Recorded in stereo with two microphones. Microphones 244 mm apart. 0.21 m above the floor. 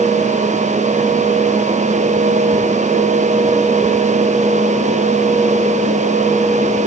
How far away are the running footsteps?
I don't hear running footsteps.